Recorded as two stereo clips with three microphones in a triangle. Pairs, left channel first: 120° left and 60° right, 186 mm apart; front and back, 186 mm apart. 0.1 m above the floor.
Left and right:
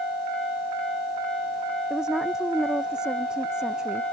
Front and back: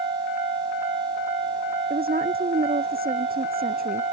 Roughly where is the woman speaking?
Behind right.